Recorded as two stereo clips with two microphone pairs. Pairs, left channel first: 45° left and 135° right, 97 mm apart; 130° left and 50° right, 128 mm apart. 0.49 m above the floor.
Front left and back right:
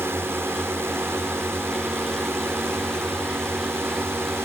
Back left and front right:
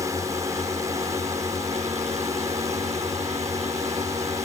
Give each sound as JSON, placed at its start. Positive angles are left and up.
{"t": 0.0, "sound": "a drone", "azimuth_deg": -90}